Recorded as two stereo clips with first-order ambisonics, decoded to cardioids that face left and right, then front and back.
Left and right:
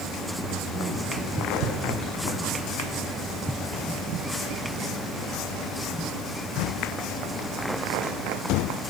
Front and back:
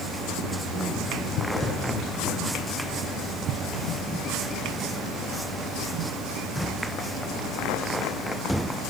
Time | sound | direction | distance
0.4 | a man speaking | 35° left | 3.5 m